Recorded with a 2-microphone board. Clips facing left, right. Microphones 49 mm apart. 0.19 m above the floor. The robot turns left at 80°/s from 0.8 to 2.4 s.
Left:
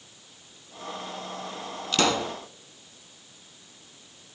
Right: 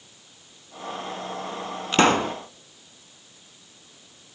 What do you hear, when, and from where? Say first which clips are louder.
1.9 s a pop: right 6 dB; 35° right, 1.0 m; by 2.4 s 70° right, 1.0 m